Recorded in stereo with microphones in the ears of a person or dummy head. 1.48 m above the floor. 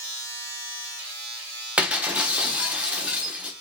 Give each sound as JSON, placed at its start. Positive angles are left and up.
{"t": 0.0, "sound": "a machine running", "side_deg": -75, "distance_m": 3.0}
{"t": 1.8, "sound": "breaking glass", "side_deg": -5, "distance_m": 0.8}